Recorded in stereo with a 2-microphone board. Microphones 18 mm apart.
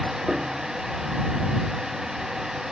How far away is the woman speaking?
I don't hear a woman speaking.